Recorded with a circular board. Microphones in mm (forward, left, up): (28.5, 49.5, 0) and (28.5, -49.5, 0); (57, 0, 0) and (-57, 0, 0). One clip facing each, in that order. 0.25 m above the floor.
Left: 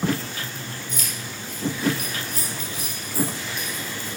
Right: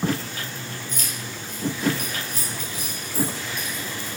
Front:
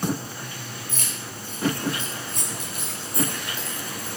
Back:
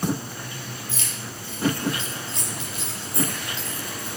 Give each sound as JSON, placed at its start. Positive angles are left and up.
{"t": 0.9, "sound": "keys jangling", "azimuth_deg": -45, "distance_m": 4.0}